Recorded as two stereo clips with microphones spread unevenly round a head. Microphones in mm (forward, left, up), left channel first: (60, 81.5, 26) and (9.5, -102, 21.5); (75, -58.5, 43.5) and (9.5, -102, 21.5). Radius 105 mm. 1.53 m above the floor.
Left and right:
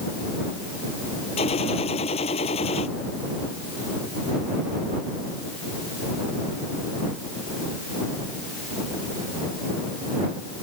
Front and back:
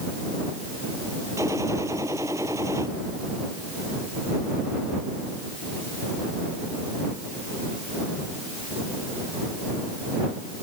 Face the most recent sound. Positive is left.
turn(degrees=140)